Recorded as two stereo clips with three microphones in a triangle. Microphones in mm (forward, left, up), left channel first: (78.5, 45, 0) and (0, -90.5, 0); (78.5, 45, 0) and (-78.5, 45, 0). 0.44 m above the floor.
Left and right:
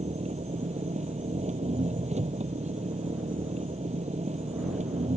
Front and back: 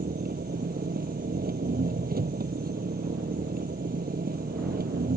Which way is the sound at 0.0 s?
165° right.